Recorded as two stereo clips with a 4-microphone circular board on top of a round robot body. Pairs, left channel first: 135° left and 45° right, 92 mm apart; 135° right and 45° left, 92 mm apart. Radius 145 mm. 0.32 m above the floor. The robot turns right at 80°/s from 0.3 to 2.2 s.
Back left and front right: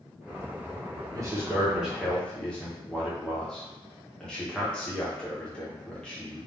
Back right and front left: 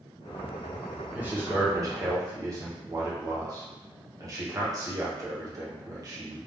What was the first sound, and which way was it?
A man speaking, 25° right.